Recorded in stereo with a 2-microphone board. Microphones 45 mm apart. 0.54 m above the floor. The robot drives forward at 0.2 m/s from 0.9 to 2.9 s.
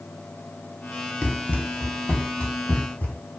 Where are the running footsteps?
35° left (ahead or behind), 0.6 m; by 3.2 s 40° left (ahead or behind), 1.5 m.